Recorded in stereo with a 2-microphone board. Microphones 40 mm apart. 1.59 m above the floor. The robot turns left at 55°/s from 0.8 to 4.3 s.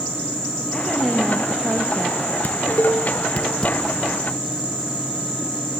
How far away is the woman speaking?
About 1.8 m.